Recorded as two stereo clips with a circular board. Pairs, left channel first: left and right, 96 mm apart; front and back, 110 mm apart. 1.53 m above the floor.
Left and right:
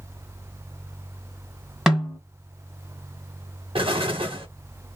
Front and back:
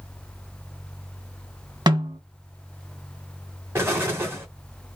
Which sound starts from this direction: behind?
A snare drum, at 1.9 s.